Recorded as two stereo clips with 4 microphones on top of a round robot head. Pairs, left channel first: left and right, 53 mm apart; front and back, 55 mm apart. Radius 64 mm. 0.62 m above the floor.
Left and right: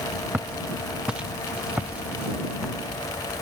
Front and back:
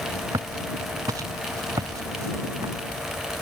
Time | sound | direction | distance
0.3 | footsteps | 165° right | ?